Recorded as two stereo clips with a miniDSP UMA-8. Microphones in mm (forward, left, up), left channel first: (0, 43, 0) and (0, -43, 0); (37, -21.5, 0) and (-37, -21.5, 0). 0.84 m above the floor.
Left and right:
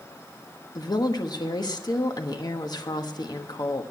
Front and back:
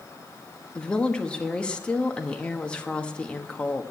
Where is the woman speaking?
70° left, 1.2 m.